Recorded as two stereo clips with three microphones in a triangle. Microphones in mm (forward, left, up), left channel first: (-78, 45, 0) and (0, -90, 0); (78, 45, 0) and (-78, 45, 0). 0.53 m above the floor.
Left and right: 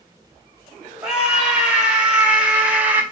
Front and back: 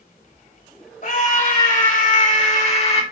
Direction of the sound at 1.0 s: 25° left.